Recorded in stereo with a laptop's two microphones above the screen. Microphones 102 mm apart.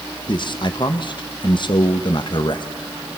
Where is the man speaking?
50° left (ahead or behind), 1.2 m.